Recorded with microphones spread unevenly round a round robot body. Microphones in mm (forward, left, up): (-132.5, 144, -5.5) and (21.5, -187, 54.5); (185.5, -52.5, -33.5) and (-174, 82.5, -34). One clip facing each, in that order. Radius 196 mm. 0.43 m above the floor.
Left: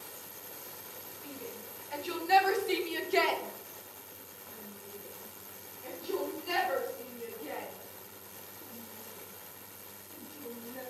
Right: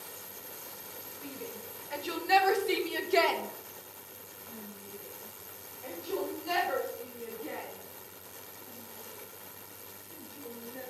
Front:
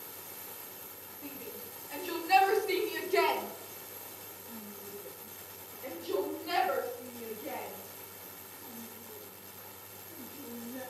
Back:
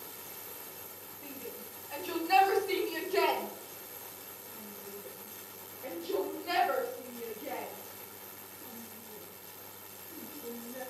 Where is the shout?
80° right, 1.8 m; by 10.8 s 80° left, 3.5 m.